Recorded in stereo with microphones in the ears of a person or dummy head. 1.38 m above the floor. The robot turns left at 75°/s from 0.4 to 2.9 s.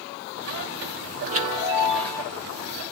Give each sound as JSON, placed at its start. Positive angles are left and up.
{"t": 1.2, "sound": "a chime", "azimuth_deg": -125, "distance_m": 1.5}